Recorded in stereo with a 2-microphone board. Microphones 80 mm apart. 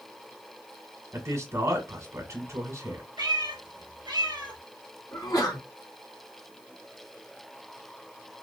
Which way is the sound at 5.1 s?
50° left (ahead or behind).